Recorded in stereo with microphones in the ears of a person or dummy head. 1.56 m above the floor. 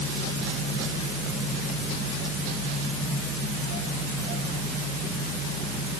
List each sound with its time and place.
Only background noise.